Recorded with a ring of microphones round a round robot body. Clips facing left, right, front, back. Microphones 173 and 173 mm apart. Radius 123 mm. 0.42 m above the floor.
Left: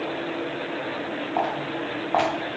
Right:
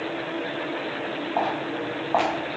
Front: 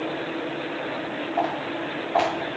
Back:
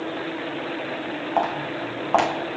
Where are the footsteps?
175° right, 1.8 m.